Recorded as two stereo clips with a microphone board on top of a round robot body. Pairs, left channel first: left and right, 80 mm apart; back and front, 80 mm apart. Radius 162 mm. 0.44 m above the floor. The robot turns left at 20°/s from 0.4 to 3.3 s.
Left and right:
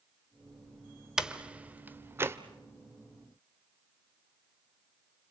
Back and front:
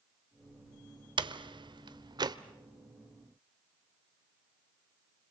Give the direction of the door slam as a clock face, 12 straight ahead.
12 o'clock.